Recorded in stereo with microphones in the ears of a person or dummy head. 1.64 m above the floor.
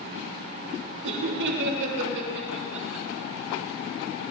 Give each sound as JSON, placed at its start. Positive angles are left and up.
{"t": 1.0, "sound": "laughter", "side_deg": -60, "distance_m": 3.0}